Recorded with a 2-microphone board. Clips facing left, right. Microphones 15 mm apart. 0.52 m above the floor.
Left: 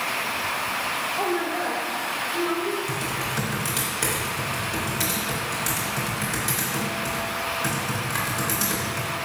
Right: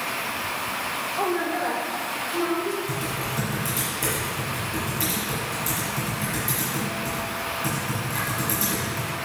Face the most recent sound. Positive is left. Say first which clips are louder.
# left 1 dB
turn(degrees=40)  # may be behind; listen again after turning